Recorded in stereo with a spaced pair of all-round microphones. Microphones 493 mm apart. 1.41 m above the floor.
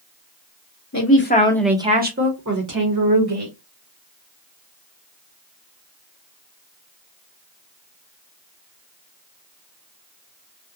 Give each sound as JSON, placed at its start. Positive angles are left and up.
{"t": 0.9, "sound": "a man speaking", "side_deg": 35, "distance_m": 0.7}